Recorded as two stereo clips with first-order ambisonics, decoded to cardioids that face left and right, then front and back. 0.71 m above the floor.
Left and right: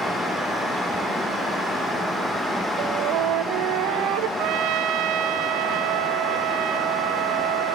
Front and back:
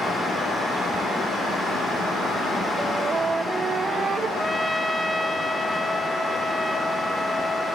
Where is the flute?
105° right, 1.1 m.